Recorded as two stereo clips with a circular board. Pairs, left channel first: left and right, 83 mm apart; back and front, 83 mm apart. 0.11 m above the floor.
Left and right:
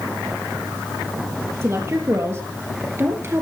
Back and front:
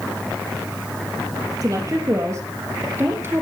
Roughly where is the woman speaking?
Ahead right.